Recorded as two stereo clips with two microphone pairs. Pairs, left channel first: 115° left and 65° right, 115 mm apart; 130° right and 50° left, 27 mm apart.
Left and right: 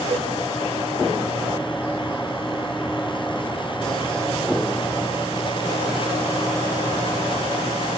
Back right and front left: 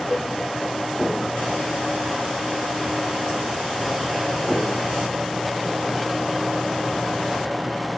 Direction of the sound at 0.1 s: 100° right.